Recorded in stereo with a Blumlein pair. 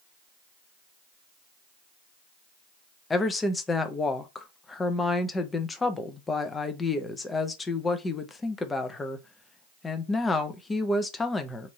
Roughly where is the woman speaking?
Ahead.